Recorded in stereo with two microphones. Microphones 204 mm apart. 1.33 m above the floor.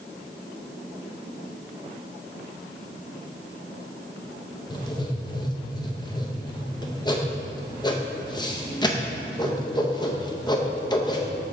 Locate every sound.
4.7 s writing: 20° left (ahead or behind), 0.7 m